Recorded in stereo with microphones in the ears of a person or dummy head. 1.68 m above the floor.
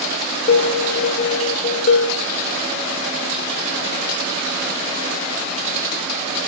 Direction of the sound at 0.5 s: 45° left (ahead or behind).